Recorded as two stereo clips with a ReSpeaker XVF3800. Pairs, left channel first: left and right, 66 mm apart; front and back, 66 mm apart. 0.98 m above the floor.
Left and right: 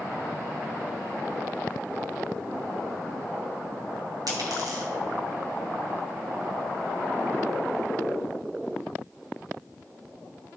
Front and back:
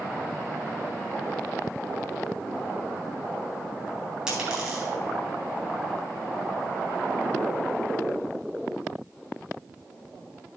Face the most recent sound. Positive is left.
turn(degrees=-100)